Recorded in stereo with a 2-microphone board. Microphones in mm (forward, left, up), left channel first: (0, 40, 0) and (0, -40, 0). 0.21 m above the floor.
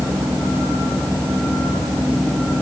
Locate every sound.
Only background noise.